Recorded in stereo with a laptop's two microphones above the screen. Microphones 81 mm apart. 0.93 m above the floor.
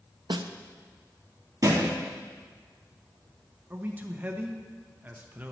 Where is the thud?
50° right (ahead or behind), 3 m.